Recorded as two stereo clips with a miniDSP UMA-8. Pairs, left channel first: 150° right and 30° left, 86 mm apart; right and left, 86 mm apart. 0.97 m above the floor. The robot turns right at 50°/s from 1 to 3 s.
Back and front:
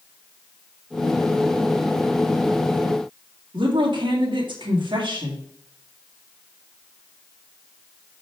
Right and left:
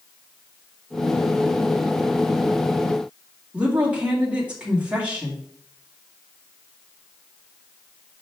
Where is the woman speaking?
15° left, 2.0 m.